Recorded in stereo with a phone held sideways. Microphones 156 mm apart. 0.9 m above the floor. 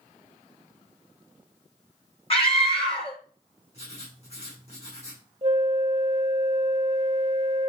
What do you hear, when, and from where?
2.3 s a scream: 40° left (ahead or behind), 3 m
3.7 s writing: 45° left (ahead or behind), 7.5 m
5.4 s a flute: 40° right (ahead or behind), 0.9 m